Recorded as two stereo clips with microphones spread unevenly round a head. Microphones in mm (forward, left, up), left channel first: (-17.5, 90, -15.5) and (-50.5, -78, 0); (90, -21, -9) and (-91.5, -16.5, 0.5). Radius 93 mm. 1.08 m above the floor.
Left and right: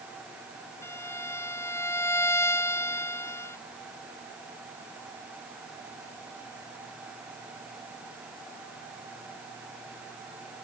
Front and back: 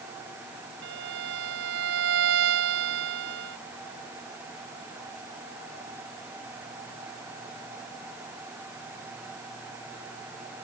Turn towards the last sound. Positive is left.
turn(degrees=155)